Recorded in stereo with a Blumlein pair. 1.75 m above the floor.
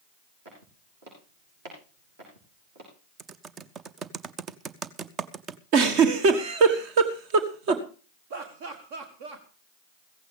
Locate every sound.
0.5 s footsteps: 55° right, 6 m
3.2 s typing on a keyboard: 25° right, 0.7 m
5.7 s a giggle: 45° right, 1.6 m
8.3 s laughter: 50° right, 1.3 m